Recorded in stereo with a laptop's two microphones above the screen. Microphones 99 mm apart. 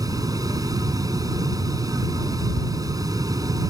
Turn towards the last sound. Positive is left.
turn(degrees=-40)  # may be behind; listen again after turning